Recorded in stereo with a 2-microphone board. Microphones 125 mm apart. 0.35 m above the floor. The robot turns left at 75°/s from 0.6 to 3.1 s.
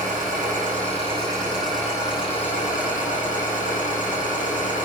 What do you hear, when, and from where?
0.0 s an engine running: 100° right, 8 m; by 4.8 s 75° left, 8 m